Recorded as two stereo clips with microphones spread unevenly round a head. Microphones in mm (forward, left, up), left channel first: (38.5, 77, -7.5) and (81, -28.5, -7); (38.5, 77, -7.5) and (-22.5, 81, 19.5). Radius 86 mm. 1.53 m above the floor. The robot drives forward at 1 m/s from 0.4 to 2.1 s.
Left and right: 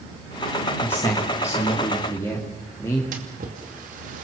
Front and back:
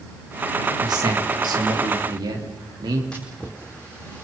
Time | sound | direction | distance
0.8 | a man speaking | 170° right | 1.9 m
3.1 | a splash | 90° right | 2.5 m